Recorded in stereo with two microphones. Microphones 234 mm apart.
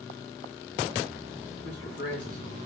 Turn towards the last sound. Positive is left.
turn(degrees=75)  # may be behind; listen again after turning